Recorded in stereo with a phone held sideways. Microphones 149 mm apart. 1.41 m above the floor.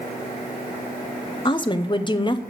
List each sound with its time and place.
1.4 s a woman speaking: 30° left (ahead or behind), 0.7 m